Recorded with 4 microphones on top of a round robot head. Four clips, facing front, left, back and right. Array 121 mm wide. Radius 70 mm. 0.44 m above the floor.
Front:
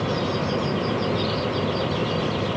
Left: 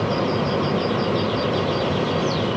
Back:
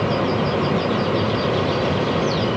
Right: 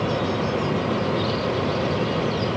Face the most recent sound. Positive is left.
No sound to turn to.